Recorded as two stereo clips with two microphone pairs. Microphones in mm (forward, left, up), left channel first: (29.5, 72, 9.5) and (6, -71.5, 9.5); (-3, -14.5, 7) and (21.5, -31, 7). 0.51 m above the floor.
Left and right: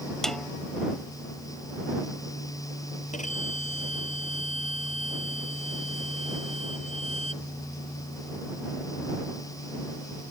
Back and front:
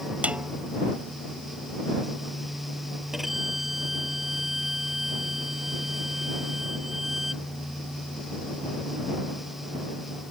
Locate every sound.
0.2 s a snare drum: 5° right
3.1 s a violin: 50° left